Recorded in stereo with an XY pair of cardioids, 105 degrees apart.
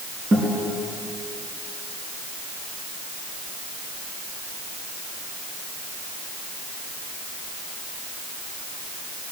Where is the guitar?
35° right, 5.5 m.